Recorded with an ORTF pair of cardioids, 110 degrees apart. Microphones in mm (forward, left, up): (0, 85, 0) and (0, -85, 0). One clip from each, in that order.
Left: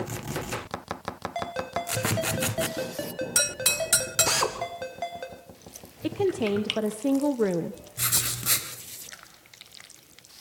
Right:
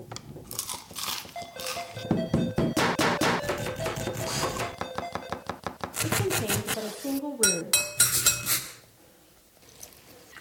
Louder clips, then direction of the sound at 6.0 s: Left 3 dB; 40° left.